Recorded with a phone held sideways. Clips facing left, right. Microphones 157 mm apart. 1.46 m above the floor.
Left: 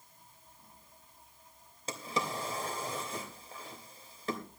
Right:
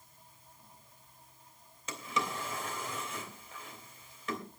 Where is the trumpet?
No trumpet in this recording.